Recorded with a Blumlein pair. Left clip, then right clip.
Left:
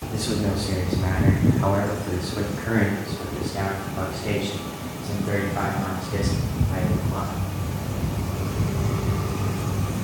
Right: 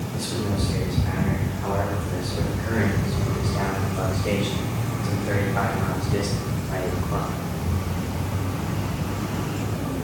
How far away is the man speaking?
About 3.5 m.